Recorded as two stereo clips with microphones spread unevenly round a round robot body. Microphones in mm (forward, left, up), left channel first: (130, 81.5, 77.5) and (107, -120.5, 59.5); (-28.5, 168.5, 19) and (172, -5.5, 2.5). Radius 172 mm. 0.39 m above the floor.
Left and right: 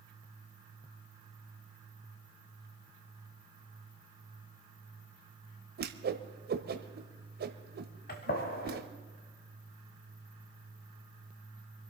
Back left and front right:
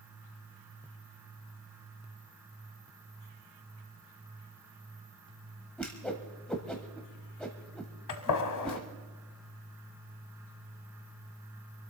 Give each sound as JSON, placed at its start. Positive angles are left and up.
{"t": 5.8, "sound": "a whoosh", "azimuth_deg": -135, "distance_m": 0.9}
{"t": 8.1, "sound": "a gunshot", "azimuth_deg": 140, "distance_m": 1.4}